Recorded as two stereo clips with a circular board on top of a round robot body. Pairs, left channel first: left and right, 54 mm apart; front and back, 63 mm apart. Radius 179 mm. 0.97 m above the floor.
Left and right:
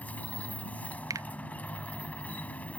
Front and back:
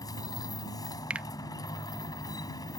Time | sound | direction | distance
0.0 | a motorcycle | 25° left | ?
1.1 | a finger snap | 105° right | ?